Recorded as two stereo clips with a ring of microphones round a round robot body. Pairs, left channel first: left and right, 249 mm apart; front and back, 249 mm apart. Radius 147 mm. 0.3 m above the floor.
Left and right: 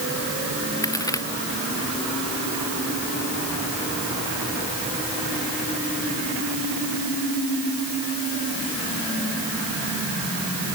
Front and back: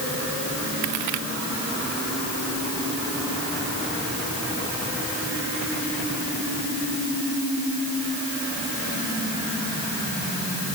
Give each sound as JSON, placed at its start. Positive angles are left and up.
{"t": 0.8, "sound": "a crack", "azimuth_deg": 165}